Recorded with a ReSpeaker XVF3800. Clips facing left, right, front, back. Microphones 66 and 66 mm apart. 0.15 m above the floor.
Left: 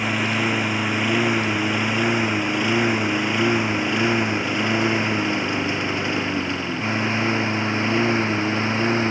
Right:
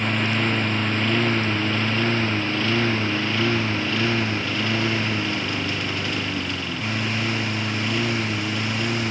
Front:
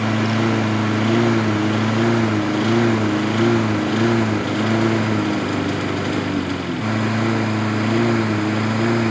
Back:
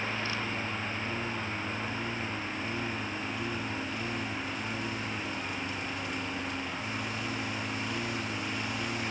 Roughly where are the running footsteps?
No running footsteps in this recording.